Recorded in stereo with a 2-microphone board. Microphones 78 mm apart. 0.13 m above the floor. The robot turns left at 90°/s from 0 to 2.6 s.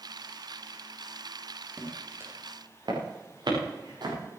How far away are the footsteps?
About 6 m.